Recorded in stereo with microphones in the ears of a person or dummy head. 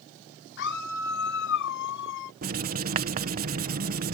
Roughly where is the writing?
Right.